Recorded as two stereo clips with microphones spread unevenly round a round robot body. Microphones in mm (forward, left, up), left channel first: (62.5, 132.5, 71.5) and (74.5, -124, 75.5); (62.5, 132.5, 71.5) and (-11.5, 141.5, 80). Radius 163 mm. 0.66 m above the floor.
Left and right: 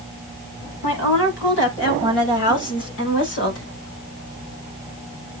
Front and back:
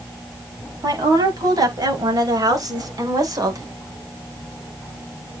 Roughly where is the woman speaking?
Behind left.